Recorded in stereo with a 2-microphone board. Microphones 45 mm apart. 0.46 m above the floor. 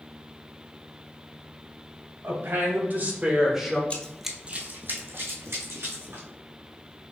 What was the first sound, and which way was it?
A woman speaking, 60° right (ahead or behind).